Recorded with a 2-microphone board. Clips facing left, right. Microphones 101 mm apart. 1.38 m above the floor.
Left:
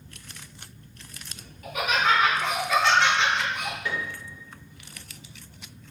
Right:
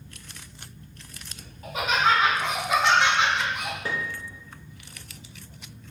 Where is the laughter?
30° right (ahead or behind), 2.5 m; by 3.8 s 5° right (ahead or behind), 2 m.